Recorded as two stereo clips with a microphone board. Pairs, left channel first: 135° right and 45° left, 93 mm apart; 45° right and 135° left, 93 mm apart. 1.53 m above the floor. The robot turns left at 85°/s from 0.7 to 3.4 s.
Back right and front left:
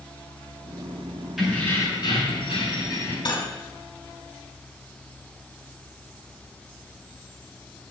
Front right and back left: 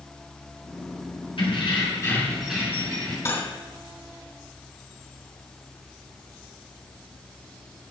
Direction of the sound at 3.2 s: 105° right.